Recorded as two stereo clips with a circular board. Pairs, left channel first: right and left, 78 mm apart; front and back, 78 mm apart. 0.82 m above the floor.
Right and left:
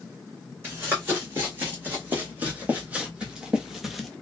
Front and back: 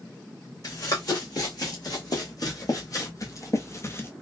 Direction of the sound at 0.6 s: 30° left.